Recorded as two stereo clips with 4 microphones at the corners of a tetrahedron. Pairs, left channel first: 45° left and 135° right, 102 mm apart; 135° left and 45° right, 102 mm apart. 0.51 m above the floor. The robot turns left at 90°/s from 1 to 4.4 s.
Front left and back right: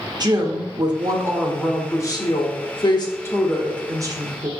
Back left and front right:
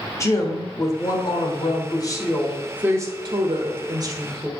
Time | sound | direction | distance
0.2 | a woman speaking | 170° right | 1.3 m